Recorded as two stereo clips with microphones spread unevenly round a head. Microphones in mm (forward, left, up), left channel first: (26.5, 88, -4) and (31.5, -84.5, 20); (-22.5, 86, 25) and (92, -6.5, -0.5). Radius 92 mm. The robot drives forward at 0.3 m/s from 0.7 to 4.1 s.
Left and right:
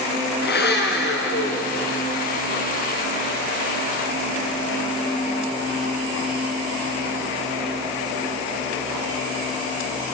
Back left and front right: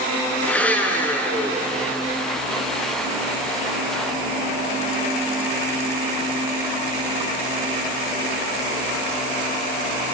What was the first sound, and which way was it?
A blender, 65° left.